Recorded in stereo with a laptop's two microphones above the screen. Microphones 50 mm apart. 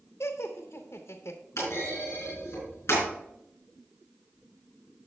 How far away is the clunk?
About 4.5 m.